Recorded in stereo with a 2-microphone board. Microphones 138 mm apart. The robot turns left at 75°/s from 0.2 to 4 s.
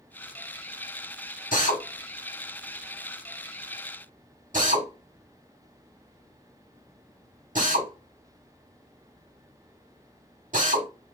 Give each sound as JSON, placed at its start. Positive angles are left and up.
{"t": 1.5, "sound": "a drill", "side_deg": 65, "distance_m": 1.2}